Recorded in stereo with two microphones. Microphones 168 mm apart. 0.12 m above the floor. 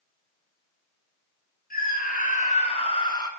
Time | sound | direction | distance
1.7 | a scream | 55° left (ahead or behind) | 2.0 m